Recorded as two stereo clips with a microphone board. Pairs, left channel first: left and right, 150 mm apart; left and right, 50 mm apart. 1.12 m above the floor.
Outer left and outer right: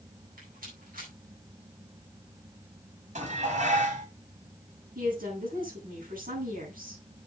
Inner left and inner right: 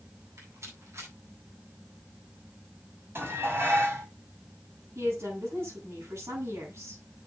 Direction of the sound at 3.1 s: 55° right (ahead or behind).